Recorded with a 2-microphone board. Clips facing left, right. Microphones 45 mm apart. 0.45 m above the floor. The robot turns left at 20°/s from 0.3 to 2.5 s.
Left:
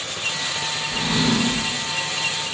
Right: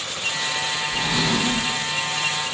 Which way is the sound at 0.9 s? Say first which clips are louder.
Left 2 dB; 5° left (ahead or behind).